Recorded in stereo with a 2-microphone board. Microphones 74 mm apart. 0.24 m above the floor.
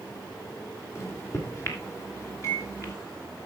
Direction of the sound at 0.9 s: 35° left (ahead or behind).